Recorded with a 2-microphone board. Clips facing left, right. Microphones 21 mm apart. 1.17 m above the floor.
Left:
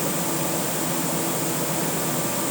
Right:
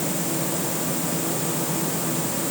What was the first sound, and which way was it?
Only background noise.